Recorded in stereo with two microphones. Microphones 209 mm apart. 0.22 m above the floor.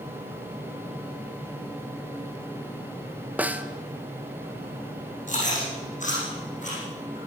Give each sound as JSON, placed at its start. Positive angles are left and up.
{"t": 3.4, "sound": "a snare drum", "side_deg": -10, "distance_m": 1.1}
{"t": 5.3, "sound": "chewing", "side_deg": 35, "distance_m": 9.0}